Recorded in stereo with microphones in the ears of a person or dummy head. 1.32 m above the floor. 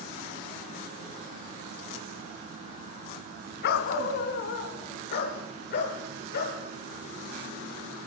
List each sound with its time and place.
3.6 s a dog barking: 55° left (ahead or behind), 2.5 m; by 6.6 s 60° left (ahead or behind), 7 m